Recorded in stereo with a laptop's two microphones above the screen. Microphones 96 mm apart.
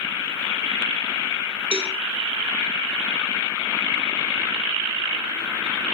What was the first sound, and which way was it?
A cowbell, 75° right (ahead or behind).